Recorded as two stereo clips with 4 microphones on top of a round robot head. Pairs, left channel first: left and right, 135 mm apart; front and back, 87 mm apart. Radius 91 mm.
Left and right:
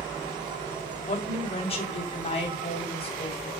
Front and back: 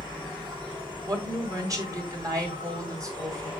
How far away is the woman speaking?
About 3.5 m.